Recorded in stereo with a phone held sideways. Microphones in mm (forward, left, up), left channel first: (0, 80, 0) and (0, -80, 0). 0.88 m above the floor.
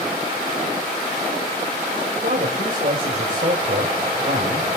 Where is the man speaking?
60° right (ahead or behind), 3.5 m.